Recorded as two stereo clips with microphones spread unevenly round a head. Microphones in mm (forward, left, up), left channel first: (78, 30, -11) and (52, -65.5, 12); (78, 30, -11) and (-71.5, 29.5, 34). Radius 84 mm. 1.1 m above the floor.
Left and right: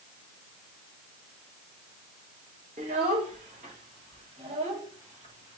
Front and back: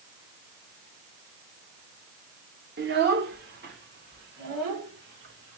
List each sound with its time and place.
2.8 s a child speaking: 145° right, 1.2 m; by 5.6 s 140° right, 3 m